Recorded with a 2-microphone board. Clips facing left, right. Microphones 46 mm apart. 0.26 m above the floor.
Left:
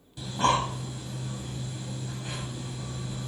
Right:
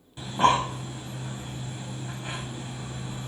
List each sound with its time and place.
0.2 s breathing: 30° right (ahead or behind), 0.9 m